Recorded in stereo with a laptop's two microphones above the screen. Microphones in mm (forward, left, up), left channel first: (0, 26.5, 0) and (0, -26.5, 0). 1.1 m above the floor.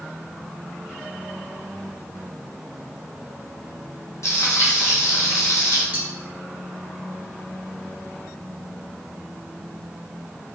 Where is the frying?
65° left (ahead or behind), 0.5 m.